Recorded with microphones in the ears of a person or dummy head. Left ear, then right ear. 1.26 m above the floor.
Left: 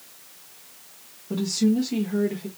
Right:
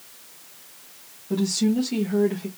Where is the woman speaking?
10° right (ahead or behind), 1.5 m; by 2.5 s 35° right (ahead or behind), 1.3 m.